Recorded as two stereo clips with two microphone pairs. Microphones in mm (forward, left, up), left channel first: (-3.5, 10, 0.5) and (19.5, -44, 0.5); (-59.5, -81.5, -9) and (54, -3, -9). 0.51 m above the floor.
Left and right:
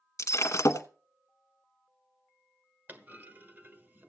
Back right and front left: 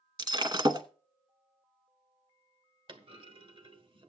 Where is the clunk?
15° right, 1.3 m.